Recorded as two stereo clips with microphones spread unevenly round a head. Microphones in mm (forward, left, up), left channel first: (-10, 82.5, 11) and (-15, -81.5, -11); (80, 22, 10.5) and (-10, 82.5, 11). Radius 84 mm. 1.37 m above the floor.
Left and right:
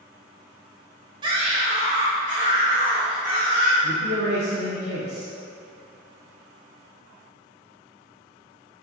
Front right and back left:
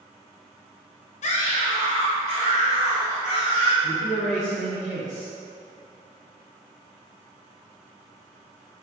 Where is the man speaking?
115° right, 1.1 m.